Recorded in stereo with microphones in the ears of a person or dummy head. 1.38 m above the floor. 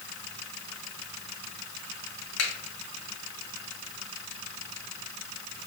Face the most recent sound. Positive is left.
turn(degrees=75)  # may be behind; listen again after turning